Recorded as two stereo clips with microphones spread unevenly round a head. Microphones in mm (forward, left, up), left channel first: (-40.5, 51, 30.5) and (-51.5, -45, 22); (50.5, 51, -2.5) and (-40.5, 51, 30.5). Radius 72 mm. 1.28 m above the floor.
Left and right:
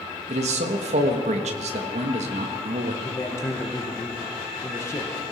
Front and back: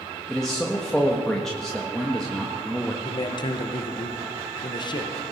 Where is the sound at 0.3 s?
85° right, 1.5 m.